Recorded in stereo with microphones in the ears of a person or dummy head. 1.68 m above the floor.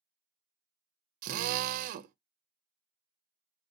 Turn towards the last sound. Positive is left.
turn(degrees=-50)  # may be behind; listen again after turning